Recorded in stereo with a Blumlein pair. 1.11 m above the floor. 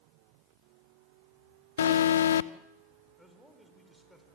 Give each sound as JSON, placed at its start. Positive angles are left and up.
{"t": 1.8, "sound": "an alarm", "azimuth_deg": 65, "distance_m": 0.8}
{"t": 3.2, "sound": "a man speaking", "azimuth_deg": 0, "distance_m": 4.5}